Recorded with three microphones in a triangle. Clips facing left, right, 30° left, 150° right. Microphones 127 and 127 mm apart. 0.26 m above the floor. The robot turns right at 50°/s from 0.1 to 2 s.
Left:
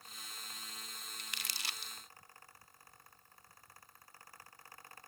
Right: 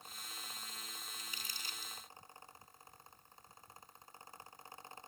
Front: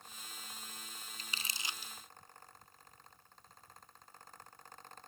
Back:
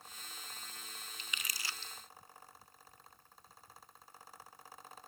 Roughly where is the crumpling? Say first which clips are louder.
Left 2 dB, front 1 dB; left.